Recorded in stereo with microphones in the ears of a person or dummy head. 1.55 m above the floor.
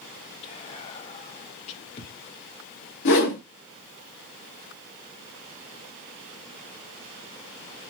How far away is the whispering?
About 0.7 m.